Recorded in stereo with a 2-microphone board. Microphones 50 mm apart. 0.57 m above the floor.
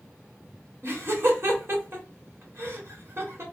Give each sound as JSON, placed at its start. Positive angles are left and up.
{"t": 0.8, "sound": "laughter", "side_deg": -55, "distance_m": 1.6}